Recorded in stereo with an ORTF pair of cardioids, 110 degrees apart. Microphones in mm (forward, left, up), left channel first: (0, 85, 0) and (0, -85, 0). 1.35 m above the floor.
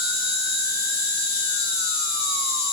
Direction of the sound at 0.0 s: 65° left.